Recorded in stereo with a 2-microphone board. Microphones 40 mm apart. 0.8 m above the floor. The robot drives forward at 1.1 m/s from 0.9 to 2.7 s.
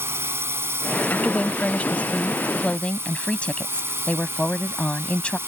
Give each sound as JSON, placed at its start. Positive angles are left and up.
{"t": 0.0, "sound": "a drone", "side_deg": -80}
{"t": 1.1, "sound": "a woman speaking", "side_deg": 40}